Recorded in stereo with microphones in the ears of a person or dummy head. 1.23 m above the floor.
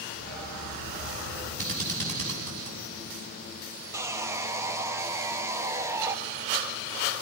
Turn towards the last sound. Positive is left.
turn(degrees=-20)  # may be behind; listen again after turning